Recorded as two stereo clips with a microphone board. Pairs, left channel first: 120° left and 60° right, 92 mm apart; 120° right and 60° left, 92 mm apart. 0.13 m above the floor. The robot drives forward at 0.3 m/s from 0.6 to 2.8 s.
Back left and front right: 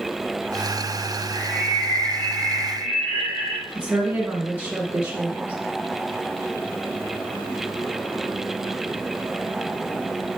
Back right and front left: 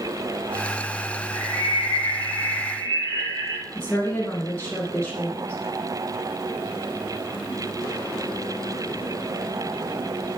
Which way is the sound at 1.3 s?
105° left.